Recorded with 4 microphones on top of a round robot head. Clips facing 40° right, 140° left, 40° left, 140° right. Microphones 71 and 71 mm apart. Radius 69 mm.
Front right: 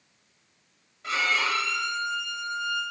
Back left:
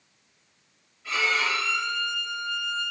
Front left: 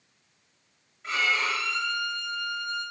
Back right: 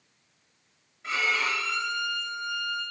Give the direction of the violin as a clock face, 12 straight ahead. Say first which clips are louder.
Even, front left 1 dB; 2 o'clock.